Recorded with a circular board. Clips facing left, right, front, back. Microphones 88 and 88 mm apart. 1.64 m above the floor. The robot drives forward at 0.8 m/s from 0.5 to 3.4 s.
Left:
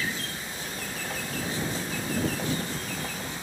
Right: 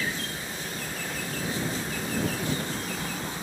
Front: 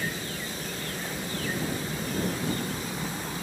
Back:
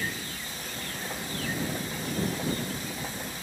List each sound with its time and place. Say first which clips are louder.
0.0 s an engine running: right 1 dB, front 2 dB; 15° right; by 3.4 s 25° right